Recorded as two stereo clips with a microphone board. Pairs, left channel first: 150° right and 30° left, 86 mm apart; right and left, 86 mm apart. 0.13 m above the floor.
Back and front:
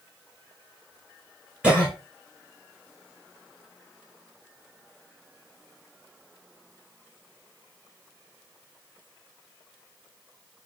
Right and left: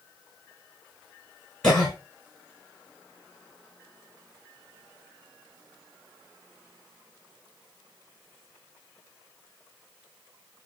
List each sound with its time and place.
1.6 s a cough: 20° right, 1.4 m